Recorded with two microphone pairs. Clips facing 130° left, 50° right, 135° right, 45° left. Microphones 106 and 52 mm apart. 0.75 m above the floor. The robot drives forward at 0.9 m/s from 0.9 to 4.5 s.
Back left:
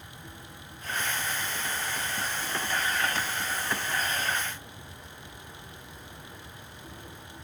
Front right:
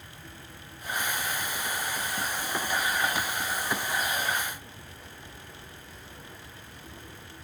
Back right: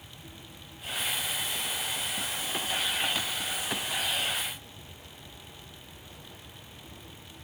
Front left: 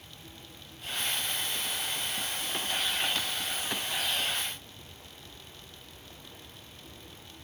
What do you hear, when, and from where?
Only background noise.